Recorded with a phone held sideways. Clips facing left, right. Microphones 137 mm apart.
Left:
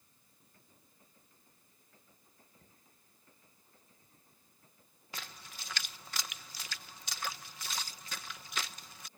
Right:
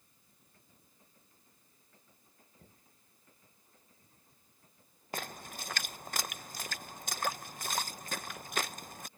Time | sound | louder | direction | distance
2.6 | knocking | right 3 dB | 20° right (ahead or behind) | ?
5.1 | a splash | right 8 dB | 50° right (ahead or behind) | ?